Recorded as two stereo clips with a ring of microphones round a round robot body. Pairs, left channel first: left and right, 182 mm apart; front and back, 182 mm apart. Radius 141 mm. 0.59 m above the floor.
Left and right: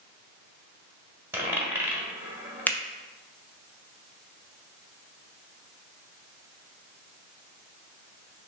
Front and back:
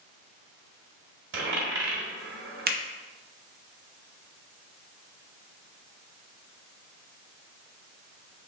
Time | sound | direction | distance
1.3 | a dropped coin | 170° right | 1.3 m
2.7 | a finger snap | 170° left | 0.6 m